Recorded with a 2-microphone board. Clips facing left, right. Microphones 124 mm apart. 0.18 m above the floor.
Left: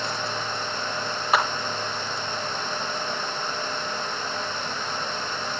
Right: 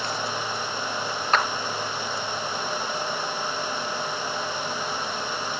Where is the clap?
5° left (ahead or behind), 3 m.